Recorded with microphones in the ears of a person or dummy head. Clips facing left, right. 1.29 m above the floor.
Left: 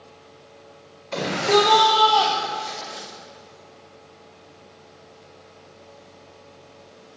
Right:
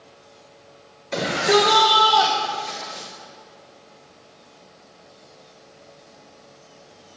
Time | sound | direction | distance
1.1 | a shout | 15° right (ahead or behind) | 4 m